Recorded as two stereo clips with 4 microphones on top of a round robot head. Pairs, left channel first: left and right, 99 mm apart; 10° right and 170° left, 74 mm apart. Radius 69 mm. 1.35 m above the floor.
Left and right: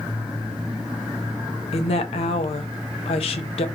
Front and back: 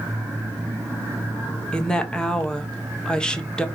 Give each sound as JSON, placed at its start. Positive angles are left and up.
{"t": 1.7, "sound": "a woman speaking", "azimuth_deg": 70, "distance_m": 1.1}